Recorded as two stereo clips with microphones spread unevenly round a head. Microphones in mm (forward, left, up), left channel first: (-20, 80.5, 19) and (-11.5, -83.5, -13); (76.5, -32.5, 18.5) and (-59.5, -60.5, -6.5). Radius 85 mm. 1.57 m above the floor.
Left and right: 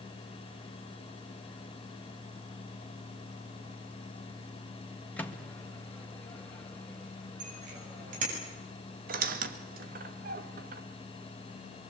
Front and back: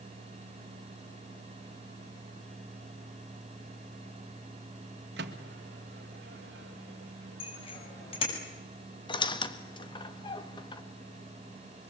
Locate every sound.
5.2 s a microwave: 170° left, 2 m
7.4 s a bicycle bell: 35° right, 8 m
9.1 s a squeak: 40° right, 1.9 m